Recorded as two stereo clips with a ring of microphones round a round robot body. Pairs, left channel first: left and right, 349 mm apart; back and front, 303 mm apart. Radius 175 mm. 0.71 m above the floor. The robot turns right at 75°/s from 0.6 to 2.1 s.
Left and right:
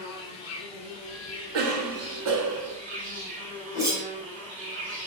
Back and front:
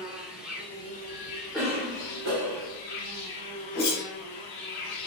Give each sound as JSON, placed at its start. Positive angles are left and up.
{"t": 0.0, "sound": "an insect", "azimuth_deg": 90, "distance_m": 1.6}
{"t": 1.5, "sound": "a cough", "azimuth_deg": -90, "distance_m": 1.0}
{"t": 3.7, "sound": "a whoosh", "azimuth_deg": -170, "distance_m": 2.5}